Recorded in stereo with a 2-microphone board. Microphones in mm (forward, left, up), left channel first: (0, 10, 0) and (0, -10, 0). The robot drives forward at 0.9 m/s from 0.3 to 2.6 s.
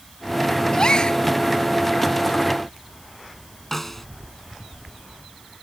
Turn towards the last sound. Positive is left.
turn(degrees=15)  # may be behind; listen again after turning